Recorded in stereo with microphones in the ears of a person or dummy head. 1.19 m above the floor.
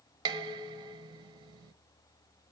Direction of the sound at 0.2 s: 25° right (ahead or behind).